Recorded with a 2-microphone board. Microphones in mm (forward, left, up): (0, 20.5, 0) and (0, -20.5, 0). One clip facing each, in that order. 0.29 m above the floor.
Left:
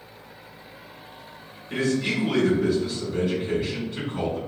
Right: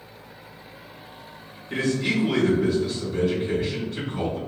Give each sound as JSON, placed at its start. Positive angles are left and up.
{"t": 1.7, "sound": "a man speaking", "side_deg": 5, "distance_m": 1.3}